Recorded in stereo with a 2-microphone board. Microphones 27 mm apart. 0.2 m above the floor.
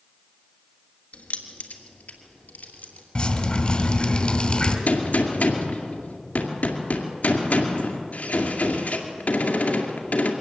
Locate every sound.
1.1 s keys jangling: 65° left (ahead or behind), 1.8 m; by 3.0 s 75° left (ahead or behind), 3 m
3.1 s dripping: 35° left (ahead or behind), 1.9 m
4.9 s a gunshot: 75° left (ahead or behind), 2 m